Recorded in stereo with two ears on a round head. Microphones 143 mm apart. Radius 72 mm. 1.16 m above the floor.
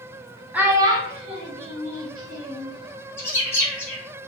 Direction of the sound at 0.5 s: 10° right (ahead or behind).